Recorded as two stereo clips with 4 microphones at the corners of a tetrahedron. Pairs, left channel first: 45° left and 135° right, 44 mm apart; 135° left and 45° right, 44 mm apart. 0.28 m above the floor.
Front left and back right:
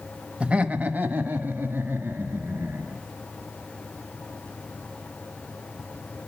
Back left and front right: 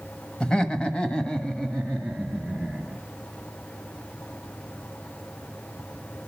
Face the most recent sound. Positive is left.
turn(degrees=-155)